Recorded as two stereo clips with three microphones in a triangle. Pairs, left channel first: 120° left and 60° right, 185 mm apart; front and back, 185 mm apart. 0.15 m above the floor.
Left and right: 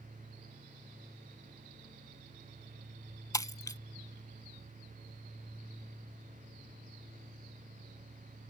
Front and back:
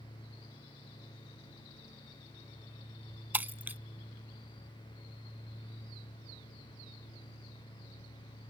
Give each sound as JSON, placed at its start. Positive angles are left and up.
{"t": 3.3, "sound": "breaking glass", "azimuth_deg": 120}